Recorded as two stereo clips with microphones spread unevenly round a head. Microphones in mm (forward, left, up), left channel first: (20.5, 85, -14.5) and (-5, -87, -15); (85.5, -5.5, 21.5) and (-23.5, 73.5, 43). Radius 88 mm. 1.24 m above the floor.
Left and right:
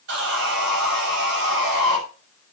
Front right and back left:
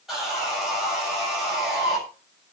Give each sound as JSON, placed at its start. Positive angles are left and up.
{"t": 0.1, "sound": "sawing", "azimuth_deg": -130, "distance_m": 6.5}